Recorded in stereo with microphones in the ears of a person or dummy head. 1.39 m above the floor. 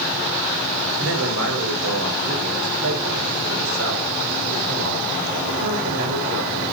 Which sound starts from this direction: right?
A man speaking, at 1.0 s.